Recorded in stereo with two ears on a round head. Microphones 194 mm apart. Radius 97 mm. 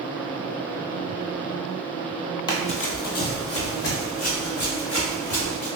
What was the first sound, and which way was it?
Running footsteps, 20° left (ahead or behind).